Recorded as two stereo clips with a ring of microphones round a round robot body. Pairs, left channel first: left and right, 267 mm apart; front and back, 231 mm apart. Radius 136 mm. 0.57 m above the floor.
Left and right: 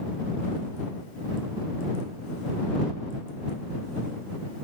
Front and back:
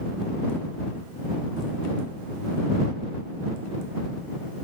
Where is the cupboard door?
I don't hear a cupboard door.